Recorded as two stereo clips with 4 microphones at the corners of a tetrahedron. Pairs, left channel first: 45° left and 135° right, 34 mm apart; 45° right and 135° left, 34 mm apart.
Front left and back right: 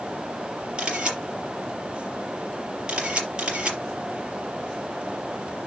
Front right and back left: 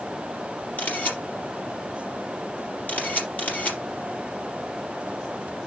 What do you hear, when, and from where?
0.8 s a camera shutter: 75° right, 4 m